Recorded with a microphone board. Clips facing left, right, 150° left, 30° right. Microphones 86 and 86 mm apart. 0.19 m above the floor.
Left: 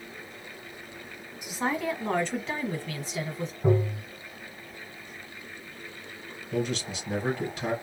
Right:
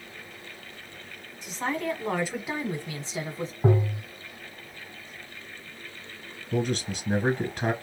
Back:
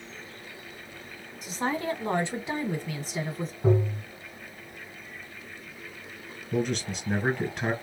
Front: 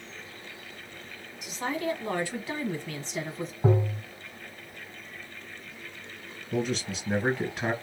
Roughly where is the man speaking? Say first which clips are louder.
Right 2 dB, back 1 dB; behind right.